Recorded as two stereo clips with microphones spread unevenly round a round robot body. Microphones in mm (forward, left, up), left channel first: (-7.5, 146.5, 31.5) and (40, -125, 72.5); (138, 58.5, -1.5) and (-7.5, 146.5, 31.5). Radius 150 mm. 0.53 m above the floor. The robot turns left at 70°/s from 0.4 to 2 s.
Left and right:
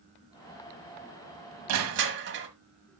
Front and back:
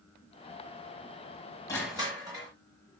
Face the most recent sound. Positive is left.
turn(degrees=-135)